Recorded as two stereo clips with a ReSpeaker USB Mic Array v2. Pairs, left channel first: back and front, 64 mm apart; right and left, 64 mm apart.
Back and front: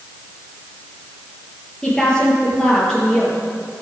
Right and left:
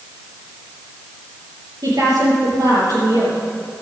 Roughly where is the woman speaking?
Left.